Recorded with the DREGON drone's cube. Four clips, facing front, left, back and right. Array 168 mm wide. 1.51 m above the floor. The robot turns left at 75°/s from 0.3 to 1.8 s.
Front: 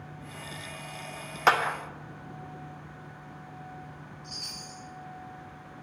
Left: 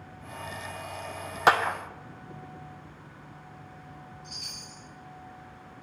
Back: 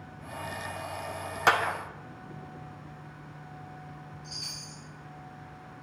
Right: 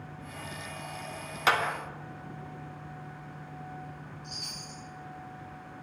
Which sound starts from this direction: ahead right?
A chime, at 4.2 s.